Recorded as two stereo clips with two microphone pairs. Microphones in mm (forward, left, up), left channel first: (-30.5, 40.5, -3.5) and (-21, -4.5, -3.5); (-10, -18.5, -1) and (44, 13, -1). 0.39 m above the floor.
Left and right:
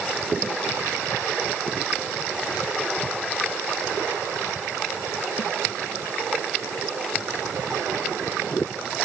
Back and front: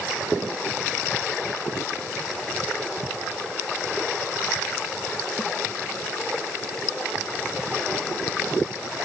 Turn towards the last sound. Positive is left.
No sound to turn to.